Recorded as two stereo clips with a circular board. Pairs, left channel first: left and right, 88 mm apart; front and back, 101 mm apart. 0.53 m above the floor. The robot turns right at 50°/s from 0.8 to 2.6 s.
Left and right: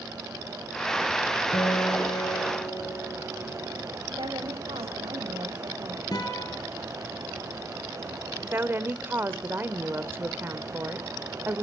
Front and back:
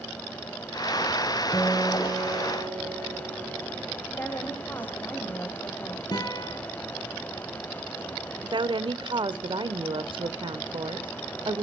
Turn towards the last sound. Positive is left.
turn(degrees=-150)